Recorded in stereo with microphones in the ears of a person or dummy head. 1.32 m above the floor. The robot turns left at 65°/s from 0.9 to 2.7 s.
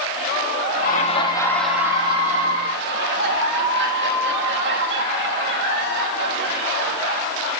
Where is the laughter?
50° left, 3 m; by 7.3 s 65° right, 3 m.